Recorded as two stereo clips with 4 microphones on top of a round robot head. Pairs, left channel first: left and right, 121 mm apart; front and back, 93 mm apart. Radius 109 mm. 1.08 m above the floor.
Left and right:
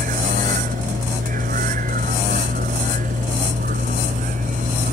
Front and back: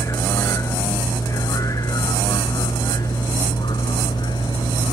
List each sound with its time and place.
0.0 s a vehicle: 70° right; by 4.9 s 55° right